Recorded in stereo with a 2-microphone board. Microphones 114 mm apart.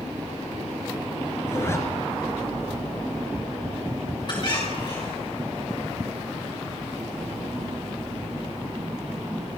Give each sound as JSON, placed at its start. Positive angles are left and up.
{"t": 1.5, "sound": "a zipper", "side_deg": 20, "distance_m": 2.5}
{"t": 4.3, "sound": "a squeak", "side_deg": 40, "distance_m": 6.5}